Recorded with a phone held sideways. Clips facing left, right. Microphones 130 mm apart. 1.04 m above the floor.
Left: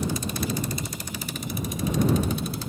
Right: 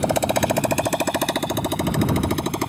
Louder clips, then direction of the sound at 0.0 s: Right 9 dB; 80° right.